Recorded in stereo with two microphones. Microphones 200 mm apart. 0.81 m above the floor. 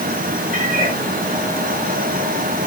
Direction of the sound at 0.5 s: 40° right (ahead or behind).